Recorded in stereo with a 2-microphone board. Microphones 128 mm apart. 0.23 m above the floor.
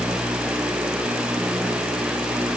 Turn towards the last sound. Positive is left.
No sound to turn to.